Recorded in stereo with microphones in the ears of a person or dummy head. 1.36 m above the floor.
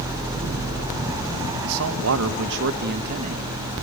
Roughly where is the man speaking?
Right.